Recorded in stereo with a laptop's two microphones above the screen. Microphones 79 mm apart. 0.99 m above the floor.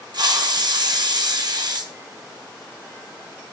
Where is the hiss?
60° right (ahead or behind), 0.9 m.